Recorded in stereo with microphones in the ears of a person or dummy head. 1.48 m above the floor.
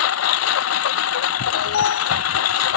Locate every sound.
0.0 s a lawn mower: 75° left (ahead or behind)
1.5 s an alarm: 75° left (ahead or behind)